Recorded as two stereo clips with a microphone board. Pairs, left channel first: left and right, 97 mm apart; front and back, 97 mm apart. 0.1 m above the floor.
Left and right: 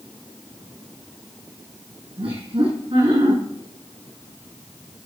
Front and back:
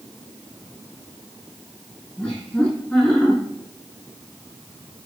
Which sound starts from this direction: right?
Laughter, at 2.2 s.